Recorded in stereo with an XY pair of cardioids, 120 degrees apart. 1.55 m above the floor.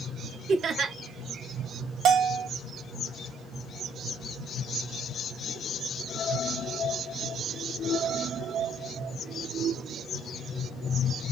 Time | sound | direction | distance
0.5 | laughter | 45° right | 0.9 m
2.0 | a bell | 55° right | 0.6 m